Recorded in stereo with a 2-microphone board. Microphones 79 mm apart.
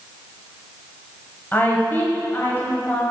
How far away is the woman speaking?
About 1.2 m.